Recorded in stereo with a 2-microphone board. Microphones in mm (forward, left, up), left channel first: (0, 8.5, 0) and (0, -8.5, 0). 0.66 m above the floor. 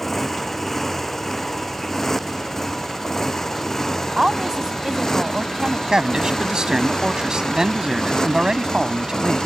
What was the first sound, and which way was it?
A motorcycle, 20° left (ahead or behind).